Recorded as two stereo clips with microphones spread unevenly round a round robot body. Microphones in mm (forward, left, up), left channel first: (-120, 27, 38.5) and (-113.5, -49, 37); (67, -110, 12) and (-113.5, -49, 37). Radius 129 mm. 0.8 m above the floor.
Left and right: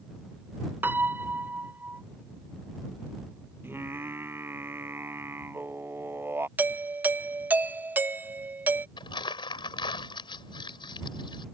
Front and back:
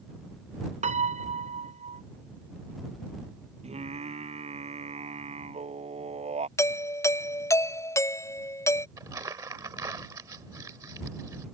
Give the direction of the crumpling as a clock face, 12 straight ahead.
9 o'clock.